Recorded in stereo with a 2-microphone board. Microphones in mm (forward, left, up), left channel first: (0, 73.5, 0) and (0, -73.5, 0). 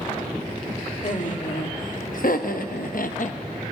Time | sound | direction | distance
1.0 | laughter | 60° left (ahead or behind) | 1.5 m